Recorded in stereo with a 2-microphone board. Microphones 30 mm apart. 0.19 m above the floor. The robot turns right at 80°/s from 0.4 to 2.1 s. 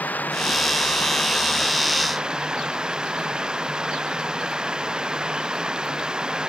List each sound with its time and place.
0.0 s running water: 70° left; by 6.5 s 155° right